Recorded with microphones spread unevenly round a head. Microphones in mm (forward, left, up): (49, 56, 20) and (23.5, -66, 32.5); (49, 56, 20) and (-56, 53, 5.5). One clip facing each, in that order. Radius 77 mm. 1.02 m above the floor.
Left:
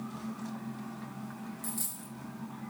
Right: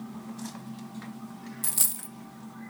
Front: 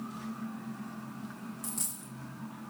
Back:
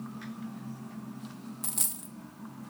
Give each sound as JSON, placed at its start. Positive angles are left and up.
{"t": 1.6, "sound": "a dropped coin", "azimuth_deg": -125, "distance_m": 0.5}